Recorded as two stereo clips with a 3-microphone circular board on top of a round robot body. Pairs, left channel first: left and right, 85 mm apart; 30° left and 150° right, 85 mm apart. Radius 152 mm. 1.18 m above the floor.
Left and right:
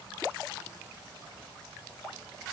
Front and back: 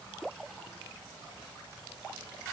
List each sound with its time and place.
Only background noise.